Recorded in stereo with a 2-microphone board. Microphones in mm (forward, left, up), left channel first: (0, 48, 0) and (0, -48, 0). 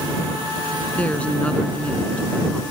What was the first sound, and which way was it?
A woman speaking, 10° left (ahead or behind).